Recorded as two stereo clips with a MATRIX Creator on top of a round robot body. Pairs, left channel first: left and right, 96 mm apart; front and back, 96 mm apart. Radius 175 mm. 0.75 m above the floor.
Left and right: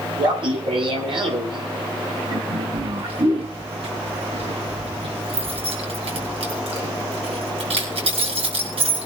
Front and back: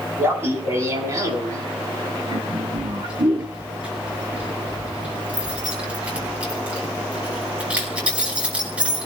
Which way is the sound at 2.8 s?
100° right.